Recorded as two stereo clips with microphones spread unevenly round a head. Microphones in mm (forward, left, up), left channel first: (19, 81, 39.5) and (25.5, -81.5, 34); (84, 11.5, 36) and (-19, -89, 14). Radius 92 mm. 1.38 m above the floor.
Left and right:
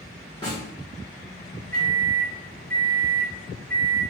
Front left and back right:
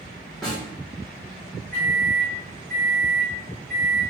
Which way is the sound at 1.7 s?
135° left.